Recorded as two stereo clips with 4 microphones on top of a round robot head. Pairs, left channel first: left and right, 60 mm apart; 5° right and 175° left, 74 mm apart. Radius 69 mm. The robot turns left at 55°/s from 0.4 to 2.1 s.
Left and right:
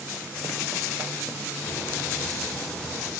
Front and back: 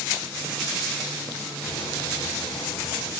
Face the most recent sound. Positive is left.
turn(degrees=5)